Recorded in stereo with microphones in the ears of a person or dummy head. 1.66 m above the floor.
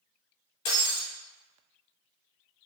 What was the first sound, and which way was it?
Breaking glass, 30° left (ahead or behind).